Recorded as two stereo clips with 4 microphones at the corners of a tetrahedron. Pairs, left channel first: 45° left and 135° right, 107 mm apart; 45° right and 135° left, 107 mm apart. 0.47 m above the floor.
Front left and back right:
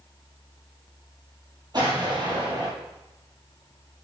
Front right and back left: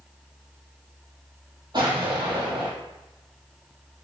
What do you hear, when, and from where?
1.7 s an explosion: straight behind, 2.5 m